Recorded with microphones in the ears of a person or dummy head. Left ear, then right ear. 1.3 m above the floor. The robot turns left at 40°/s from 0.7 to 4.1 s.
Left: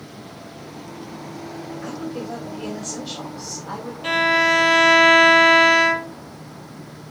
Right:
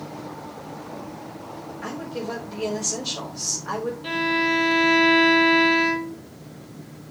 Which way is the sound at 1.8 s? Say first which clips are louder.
Right 1 dB; 10° right.